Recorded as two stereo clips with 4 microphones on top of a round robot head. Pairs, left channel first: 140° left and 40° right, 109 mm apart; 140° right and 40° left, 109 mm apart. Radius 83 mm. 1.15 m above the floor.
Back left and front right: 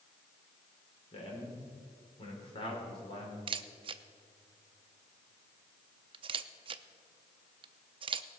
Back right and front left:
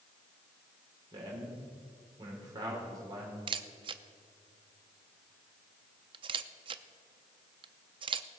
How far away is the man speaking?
About 3.5 m.